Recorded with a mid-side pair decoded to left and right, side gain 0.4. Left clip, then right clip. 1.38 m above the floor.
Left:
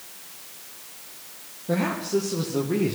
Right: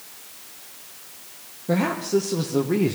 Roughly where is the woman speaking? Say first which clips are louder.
Right 3 dB; ahead right.